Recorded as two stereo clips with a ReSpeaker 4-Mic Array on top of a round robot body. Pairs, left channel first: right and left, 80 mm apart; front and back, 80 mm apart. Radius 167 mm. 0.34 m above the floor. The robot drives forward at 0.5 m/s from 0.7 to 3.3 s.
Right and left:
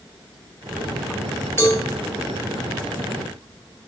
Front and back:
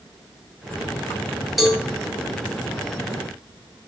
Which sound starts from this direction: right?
A cowbell, at 1.6 s.